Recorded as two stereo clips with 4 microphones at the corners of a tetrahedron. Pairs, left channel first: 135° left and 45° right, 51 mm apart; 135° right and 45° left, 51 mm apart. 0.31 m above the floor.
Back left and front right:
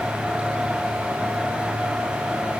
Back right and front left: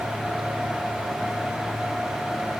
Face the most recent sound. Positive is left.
No sound to turn to.